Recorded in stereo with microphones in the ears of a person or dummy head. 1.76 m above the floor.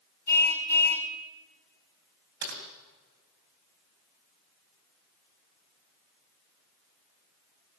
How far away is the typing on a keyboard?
About 3.5 m.